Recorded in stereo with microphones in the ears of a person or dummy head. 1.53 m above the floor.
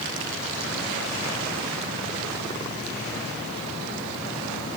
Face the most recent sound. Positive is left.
No sound to turn to.